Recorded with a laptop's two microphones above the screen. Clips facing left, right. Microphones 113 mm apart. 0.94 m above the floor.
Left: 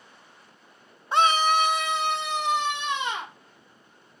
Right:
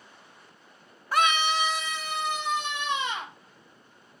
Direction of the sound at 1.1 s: 20° left (ahead or behind).